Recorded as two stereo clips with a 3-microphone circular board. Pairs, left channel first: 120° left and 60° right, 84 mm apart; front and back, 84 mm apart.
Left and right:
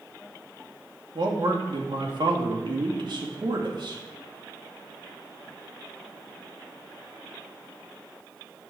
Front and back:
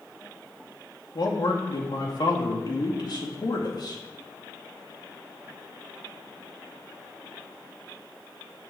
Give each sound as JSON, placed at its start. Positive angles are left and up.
{"t": 1.1, "sound": "a man speaking", "azimuth_deg": -35, "distance_m": 2.0}